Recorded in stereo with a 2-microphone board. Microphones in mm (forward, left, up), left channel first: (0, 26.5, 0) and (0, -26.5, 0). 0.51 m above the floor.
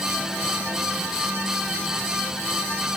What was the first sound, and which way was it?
Only background noise.